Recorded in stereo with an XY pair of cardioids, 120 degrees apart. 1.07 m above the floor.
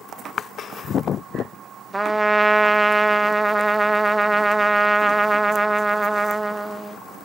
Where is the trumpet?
10° right, 0.7 m.